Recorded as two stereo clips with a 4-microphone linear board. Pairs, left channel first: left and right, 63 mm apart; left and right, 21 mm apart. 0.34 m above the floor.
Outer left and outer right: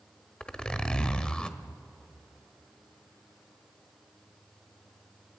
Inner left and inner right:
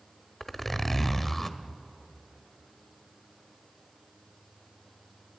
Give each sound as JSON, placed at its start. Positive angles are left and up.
{"t": 0.4, "sound": "a zipper", "side_deg": 15, "distance_m": 1.1}